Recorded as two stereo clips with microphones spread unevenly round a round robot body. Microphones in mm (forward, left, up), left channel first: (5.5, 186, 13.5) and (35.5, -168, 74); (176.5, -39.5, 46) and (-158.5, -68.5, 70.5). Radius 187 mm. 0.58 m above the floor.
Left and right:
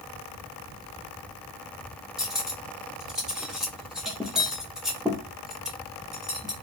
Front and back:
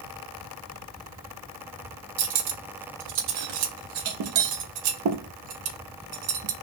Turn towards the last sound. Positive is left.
turn(degrees=180)